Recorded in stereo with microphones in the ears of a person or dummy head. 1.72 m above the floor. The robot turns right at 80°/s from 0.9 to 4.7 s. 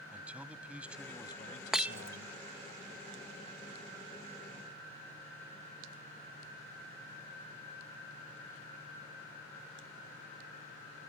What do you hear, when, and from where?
0.1 s a man speaking: 10° right; by 2.7 s 140° left
1.7 s breaking glass: centre (ahead or behind); by 2.2 s 20° right (ahead or behind)